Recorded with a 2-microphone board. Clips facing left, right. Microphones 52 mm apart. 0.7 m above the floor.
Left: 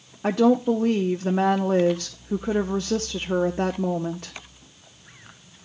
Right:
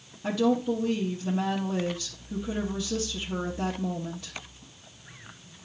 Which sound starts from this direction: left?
A woman speaking, at 0.2 s.